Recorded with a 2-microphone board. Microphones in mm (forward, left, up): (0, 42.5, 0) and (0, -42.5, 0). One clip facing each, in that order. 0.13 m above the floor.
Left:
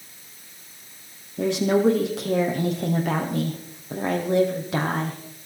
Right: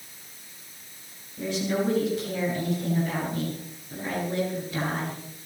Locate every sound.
1.4 s a woman speaking: 80° left, 5 m